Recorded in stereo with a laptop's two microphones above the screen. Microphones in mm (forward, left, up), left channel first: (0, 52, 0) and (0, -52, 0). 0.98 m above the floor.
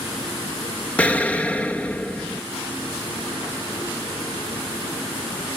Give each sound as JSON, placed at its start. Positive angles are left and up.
{"t": 1.0, "sound": "an explosion", "side_deg": 10, "distance_m": 0.5}